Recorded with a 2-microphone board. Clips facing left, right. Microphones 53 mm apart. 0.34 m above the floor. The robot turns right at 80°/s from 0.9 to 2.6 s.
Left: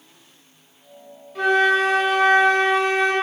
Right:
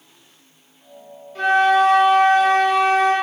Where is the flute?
10° left, 1.3 m; by 3.1 s 110° left, 1.3 m.